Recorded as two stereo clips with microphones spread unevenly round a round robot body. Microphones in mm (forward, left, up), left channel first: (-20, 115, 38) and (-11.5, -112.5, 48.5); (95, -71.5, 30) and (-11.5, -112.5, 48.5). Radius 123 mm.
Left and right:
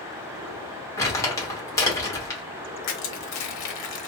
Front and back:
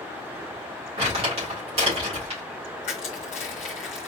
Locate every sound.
1.0 s crumpling: 165° left, 2 m
2.8 s crushing: 70° left, 1.1 m